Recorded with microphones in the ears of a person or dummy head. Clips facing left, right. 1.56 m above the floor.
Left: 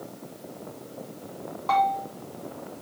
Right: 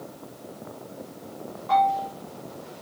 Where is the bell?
75° left (ahead or behind), 3 m.